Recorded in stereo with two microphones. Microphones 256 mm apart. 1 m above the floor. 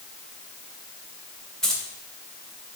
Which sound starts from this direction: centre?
Keys jangling, at 1.6 s.